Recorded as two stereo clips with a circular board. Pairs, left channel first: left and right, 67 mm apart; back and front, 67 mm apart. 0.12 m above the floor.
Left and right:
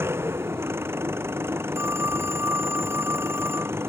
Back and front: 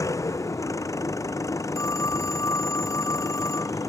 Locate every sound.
0.0 s an engine running: 140° right
1.8 s a phone ringing: 140° right